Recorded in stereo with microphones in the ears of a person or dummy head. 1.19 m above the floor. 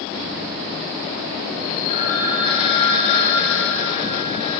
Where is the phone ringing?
35° left (ahead or behind), 4 m.